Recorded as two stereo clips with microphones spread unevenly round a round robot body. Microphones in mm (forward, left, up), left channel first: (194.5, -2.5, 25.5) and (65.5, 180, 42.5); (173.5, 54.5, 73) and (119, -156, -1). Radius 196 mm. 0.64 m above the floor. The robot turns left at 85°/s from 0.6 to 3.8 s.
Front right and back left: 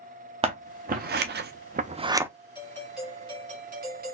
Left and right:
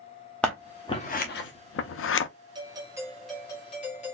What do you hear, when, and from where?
0.4 s scissors: 175° right, 0.5 m; by 2.3 s 40° left, 0.5 m
2.5 s a doorbell: 105° right, 1.2 m; by 4.1 s 145° left, 1.2 m